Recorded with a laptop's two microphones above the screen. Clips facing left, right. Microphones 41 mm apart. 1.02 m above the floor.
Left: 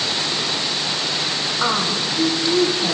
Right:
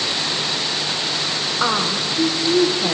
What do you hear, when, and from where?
1.6 s a woman speaking: 10° right (ahead or behind), 0.9 m